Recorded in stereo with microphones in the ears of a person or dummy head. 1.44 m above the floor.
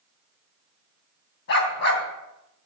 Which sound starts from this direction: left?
A dog barking, at 1.5 s.